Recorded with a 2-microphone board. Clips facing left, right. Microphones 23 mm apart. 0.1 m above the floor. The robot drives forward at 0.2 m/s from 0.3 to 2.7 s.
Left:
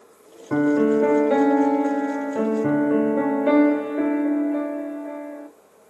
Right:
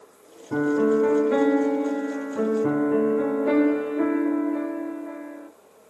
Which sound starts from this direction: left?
A piano, at 0.5 s.